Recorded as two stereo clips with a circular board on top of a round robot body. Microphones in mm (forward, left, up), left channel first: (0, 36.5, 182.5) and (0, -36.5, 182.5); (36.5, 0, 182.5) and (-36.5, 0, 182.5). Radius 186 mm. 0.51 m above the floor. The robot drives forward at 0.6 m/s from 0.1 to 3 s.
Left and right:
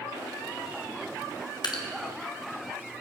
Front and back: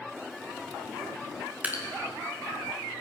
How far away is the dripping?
About 1.2 m.